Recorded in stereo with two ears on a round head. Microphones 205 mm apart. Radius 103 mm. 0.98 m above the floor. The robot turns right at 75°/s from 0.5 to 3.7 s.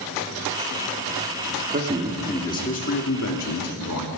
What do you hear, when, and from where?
1.7 s a man speaking: 40° right, 2.5 m; by 4.1 s 105° left, 2.5 m